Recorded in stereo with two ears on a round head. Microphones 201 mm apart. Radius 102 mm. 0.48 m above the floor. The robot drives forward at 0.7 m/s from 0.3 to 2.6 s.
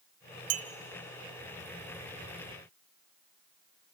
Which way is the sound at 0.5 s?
70° right (ahead or behind).